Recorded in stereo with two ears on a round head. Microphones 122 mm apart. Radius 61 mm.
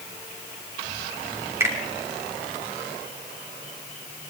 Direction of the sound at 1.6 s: 20° right (ahead or behind).